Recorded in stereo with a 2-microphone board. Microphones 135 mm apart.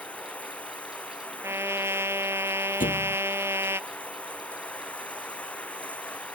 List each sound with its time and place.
0.0 s running water: 10° left (ahead or behind)
1.4 s a trumpet: 20° right (ahead or behind)
2.8 s a thud: 85° left